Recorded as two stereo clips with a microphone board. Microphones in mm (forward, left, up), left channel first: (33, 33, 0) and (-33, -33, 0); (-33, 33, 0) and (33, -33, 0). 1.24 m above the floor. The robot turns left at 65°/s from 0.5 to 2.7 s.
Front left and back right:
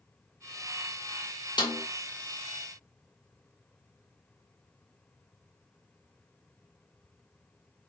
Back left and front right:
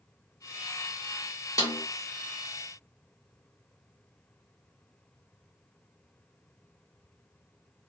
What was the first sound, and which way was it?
A snare drum, 85° left.